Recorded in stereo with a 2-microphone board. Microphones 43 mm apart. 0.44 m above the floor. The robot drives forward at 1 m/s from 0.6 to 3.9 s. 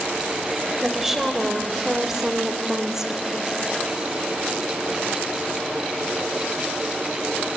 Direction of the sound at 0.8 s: 10° right (ahead or behind).